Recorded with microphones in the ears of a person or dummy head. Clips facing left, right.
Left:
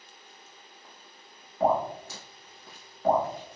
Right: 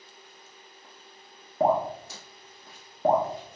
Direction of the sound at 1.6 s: 30° right (ahead or behind).